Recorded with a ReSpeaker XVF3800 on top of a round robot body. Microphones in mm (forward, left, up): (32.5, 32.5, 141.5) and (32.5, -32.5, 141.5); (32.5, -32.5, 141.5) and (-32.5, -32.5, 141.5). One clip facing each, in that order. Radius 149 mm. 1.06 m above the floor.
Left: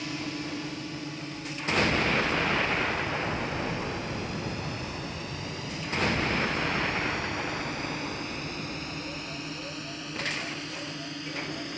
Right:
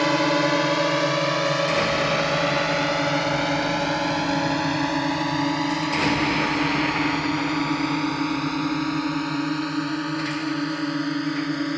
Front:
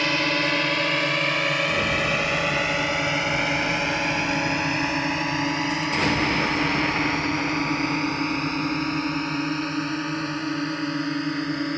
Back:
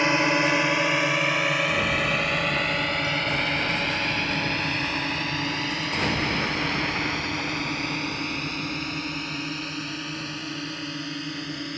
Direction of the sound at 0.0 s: 110° right.